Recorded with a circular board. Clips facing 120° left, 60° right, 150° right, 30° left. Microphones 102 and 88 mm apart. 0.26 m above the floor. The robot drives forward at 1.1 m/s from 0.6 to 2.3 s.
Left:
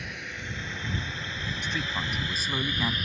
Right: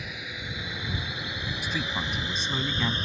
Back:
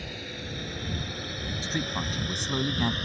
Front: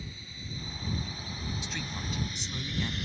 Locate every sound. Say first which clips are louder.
0.0 s a drone: even, back 8 dB; 145° right; by 3.0 s 120° right
1.6 s a man speaking: right 1 dB, back 7 dB; 140° right; by 3.0 s 155° right